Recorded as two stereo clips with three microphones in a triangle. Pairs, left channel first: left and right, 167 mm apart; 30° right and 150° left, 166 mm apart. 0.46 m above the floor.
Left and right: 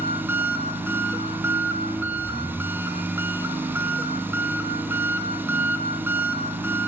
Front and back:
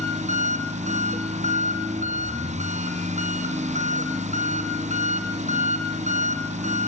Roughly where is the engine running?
Behind.